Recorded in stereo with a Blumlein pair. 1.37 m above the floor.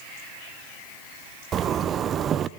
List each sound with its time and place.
1.5 s a zipper: 25° right, 0.7 m